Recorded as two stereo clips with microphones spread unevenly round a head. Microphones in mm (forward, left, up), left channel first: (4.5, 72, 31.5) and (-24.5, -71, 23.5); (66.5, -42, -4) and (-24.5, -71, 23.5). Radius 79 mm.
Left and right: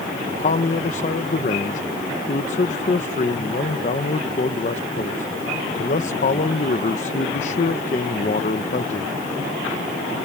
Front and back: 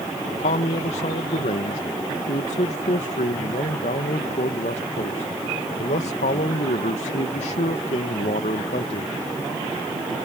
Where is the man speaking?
35° left.